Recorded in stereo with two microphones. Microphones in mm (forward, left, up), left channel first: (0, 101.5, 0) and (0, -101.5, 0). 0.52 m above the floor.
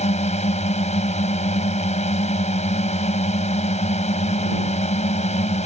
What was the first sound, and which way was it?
A drone, 35° left (ahead or behind).